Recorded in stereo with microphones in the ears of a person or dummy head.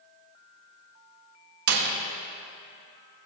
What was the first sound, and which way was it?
A door slam, 60° right (ahead or behind).